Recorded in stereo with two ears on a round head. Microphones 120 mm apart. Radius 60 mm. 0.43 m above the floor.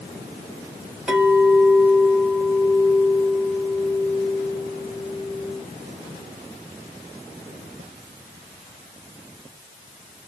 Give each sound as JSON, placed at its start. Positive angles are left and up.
{"t": 1.1, "sound": "a clink", "side_deg": -5, "distance_m": 1.7}